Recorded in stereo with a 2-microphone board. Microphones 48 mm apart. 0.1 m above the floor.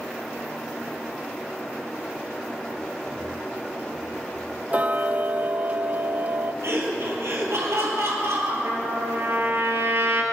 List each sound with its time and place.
4.7 s ticking: 30° right (ahead or behind), 0.7 m
6.6 s laughter: 60° right (ahead or behind), 3 m
8.6 s a trumpet: 50° right (ahead or behind), 2.5 m